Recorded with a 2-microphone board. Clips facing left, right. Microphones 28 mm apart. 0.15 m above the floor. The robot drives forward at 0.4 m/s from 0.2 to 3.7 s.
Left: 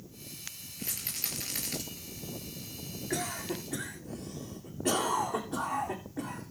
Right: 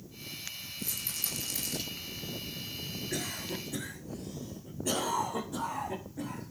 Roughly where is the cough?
Left.